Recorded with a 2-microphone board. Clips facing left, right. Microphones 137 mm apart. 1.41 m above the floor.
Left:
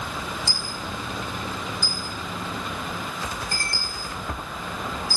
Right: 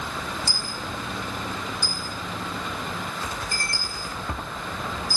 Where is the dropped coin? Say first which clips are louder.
Even; 55° left (ahead or behind), 4.5 m.